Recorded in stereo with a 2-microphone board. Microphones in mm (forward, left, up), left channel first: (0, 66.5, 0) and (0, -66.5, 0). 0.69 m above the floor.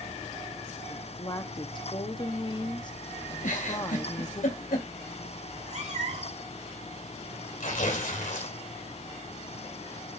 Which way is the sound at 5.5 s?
60° right (ahead or behind).